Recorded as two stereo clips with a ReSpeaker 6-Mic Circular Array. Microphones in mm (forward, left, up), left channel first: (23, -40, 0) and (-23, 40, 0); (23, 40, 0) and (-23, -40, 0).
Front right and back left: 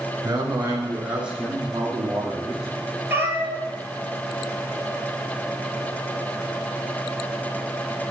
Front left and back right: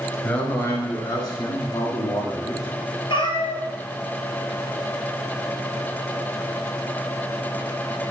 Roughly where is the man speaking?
Left.